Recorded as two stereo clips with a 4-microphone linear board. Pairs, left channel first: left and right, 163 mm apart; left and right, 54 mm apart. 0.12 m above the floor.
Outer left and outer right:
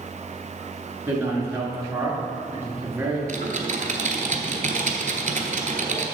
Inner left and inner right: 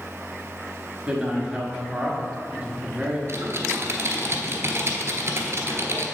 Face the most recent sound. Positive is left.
turn(degrees=-50)  # may be behind; listen again after turning